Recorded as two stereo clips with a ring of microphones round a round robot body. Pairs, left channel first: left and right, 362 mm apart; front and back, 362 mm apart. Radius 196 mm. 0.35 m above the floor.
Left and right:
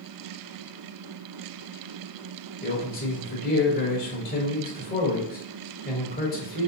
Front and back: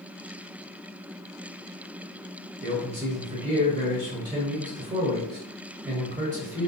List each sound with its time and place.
2.6 s a man speaking: 130° left, 1.0 m